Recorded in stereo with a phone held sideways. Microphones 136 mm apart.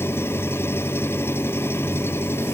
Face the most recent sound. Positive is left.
turn(degrees=15)  # may be behind; listen again after turning